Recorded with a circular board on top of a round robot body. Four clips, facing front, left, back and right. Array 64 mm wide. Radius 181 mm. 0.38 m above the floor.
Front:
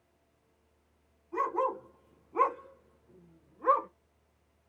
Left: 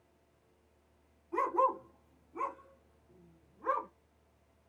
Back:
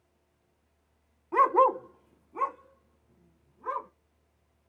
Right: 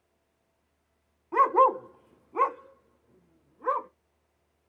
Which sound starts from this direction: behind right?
A dog barking, at 1.3 s.